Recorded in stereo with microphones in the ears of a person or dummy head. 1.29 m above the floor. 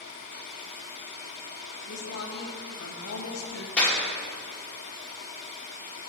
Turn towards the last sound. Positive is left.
turn(degrees=10)  # may be behind; listen again after turning